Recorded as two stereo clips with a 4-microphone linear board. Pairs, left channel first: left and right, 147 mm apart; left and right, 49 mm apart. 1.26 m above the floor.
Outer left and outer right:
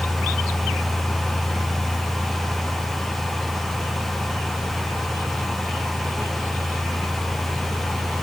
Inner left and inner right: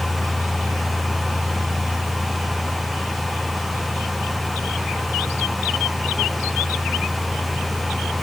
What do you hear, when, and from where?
Only background noise.